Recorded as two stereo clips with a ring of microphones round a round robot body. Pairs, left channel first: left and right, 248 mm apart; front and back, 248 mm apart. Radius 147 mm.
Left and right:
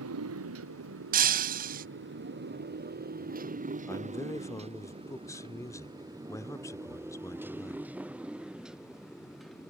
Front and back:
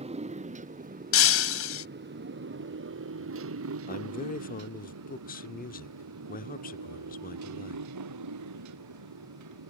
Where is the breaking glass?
30° right.